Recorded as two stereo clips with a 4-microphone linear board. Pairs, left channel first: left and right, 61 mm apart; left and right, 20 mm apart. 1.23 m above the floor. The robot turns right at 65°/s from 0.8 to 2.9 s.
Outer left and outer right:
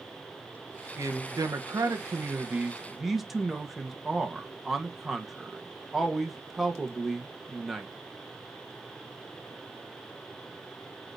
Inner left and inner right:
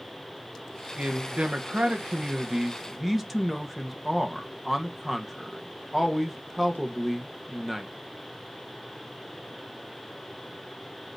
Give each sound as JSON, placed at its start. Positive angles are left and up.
{"t": 1.0, "sound": "a man speaking", "azimuth_deg": -125, "distance_m": 1.3}